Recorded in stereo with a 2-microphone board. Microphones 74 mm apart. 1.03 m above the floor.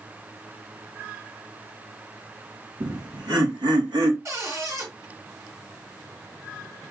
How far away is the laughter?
About 2 m.